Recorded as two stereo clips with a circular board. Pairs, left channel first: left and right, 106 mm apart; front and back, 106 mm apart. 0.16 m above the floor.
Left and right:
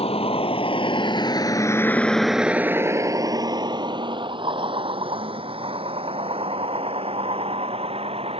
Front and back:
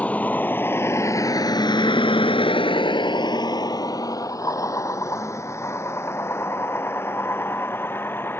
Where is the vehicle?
75° left; by 8.4 s 70° right.